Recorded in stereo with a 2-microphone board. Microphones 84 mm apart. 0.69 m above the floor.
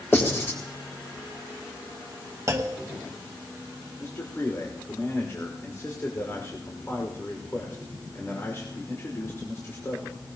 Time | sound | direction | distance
0.1 | writing | 25° left (ahead or behind) | 3.5 m
2.5 | a clunk | 35° right (ahead or behind) | 1.1 m
4.0 | a man speaking | 35° left (ahead or behind) | 2.5 m